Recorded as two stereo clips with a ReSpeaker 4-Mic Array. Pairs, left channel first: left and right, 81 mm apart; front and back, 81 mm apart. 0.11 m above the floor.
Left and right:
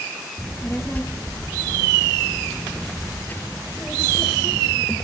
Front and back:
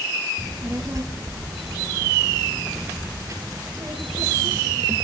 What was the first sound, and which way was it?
A child speaking, 150° left.